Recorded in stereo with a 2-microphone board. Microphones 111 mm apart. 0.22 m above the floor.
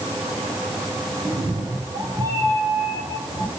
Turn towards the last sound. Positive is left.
turn(degrees=-30)  # may be behind; listen again after turning